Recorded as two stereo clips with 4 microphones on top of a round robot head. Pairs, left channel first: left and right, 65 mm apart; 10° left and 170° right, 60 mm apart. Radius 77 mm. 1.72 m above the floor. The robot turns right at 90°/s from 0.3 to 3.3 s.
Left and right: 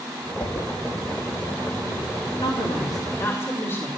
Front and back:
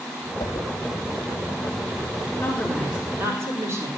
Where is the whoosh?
25° left, 1.6 m; by 0.7 s 50° left, 1.6 m.